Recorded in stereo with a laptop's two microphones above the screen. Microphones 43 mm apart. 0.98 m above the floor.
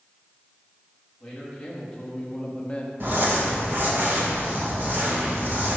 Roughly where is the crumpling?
Right.